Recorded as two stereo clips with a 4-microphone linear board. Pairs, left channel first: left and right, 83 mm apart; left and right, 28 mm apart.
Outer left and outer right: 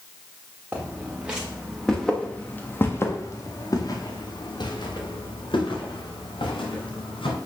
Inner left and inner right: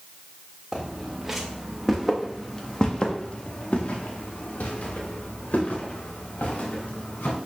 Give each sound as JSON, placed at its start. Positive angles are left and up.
{"t": 0.7, "sound": "footsteps", "side_deg": -20, "distance_m": 2.5}